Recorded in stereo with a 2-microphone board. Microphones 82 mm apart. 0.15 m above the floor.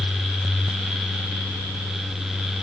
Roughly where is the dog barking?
I don't hear a dog barking.